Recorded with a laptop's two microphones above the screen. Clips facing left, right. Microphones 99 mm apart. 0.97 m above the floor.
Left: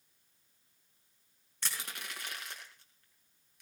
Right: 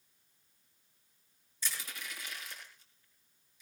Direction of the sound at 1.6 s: 65° left (ahead or behind).